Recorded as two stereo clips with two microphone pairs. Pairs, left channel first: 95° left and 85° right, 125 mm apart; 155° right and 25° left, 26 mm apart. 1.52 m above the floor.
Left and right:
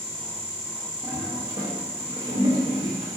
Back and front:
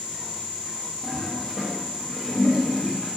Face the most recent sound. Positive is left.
turn(degrees=-115)